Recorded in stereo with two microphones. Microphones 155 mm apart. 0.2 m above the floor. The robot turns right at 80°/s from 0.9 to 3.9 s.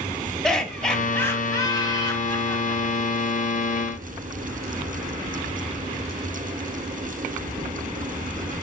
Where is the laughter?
5° left (ahead or behind), 1.2 m; by 3.2 s 5° right (ahead or behind), 1.2 m.